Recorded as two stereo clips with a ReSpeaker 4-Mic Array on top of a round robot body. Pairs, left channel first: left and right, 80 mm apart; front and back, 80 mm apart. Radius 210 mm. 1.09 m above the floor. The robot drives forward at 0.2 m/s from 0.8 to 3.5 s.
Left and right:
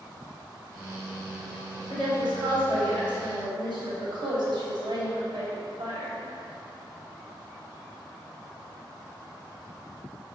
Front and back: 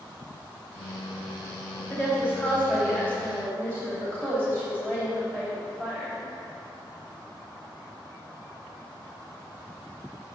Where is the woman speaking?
105° right, 3 m; by 6.2 s 110° right, 3 m.